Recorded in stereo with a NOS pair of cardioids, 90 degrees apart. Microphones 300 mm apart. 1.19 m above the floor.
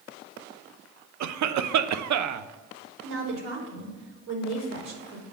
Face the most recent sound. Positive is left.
turn(degrees=-60)